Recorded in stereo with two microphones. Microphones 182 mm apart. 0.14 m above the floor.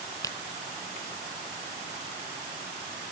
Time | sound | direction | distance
0.2 | a finger snap | 20° left (ahead or behind) | ?